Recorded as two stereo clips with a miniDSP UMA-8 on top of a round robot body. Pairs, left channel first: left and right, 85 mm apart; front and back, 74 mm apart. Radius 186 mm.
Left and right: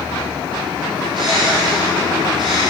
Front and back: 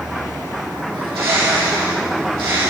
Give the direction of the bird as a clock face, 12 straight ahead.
6 o'clock.